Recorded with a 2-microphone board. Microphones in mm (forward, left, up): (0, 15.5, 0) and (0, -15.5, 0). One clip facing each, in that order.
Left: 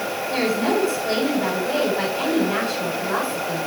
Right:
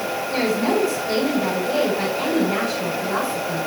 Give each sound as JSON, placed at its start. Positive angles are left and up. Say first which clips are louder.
{"t": 0.3, "sound": "a woman speaking", "louder": "even", "side_deg": 40, "distance_m": 6.0}